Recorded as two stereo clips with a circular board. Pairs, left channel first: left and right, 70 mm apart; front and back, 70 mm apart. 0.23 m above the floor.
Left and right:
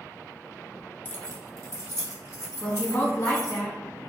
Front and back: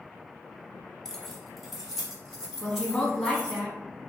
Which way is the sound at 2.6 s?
70° left.